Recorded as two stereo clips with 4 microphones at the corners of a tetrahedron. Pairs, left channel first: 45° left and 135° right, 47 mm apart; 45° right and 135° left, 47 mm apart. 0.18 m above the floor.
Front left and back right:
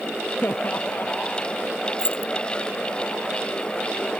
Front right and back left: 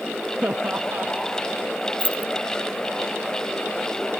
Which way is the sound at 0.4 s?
85° left.